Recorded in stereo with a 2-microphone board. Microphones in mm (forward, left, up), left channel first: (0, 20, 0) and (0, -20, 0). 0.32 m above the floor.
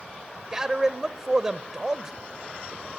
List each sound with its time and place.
0.5 s a man speaking: 15° right (ahead or behind), 0.9 m